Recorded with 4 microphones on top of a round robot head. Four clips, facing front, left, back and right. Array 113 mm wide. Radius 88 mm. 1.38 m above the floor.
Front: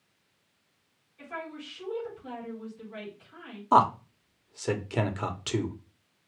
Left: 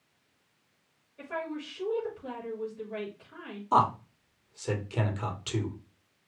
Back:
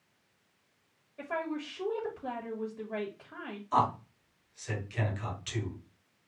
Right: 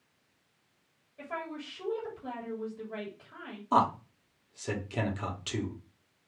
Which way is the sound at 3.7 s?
Straight ahead.